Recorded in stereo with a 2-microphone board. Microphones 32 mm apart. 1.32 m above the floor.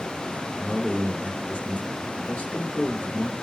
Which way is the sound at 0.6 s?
60° left (ahead or behind).